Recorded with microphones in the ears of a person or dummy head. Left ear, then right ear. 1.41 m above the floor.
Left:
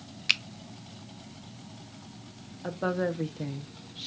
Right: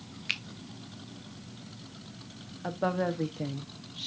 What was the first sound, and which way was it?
A finger snap, 20° left (ahead or behind).